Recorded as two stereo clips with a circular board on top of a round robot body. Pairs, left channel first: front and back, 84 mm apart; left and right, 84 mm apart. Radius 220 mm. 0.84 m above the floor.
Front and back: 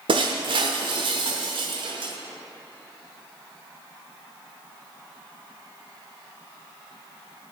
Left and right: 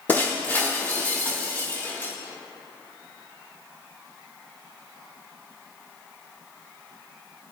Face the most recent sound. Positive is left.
turn(degrees=160)